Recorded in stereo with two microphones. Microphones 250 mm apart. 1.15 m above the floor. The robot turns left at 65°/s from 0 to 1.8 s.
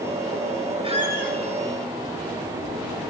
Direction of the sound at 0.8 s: 20° right.